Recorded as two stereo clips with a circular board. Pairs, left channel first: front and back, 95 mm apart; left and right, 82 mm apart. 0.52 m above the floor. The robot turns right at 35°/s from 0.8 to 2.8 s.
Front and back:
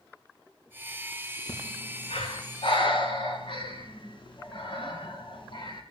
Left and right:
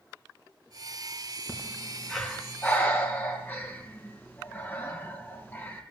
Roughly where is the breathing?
Ahead.